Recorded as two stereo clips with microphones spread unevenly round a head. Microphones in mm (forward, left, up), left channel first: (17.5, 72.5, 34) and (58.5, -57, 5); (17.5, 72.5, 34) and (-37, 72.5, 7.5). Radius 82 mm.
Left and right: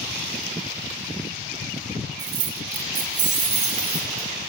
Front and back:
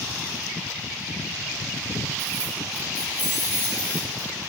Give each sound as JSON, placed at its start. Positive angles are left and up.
{"t": 2.2, "sound": "keys jangling", "azimuth_deg": -145, "distance_m": 0.6}